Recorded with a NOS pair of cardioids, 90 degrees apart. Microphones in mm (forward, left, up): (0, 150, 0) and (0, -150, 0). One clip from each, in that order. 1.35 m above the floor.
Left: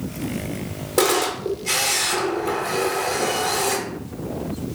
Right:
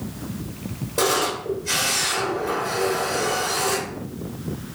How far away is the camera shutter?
About 1.1 m.